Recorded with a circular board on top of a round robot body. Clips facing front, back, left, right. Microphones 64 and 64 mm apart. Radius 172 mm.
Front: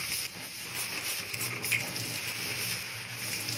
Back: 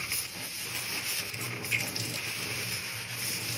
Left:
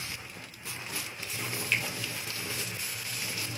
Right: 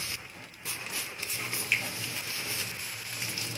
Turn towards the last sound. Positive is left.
turn(degrees=-15)